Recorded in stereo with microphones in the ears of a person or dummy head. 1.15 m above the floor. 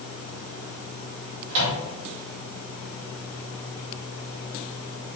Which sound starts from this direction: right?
A microwave, at 1.5 s.